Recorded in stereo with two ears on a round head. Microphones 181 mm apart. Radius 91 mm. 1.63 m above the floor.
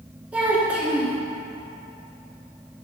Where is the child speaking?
5° right (ahead or behind), 1.0 m.